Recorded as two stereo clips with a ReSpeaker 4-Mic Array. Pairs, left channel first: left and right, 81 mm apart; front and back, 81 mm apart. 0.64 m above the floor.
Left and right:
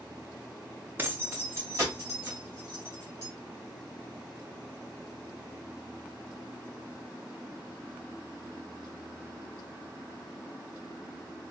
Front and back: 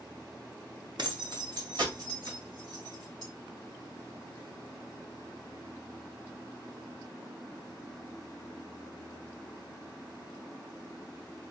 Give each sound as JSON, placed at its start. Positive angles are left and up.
{"t": 1.0, "sound": "keys jangling", "azimuth_deg": -155, "distance_m": 0.8}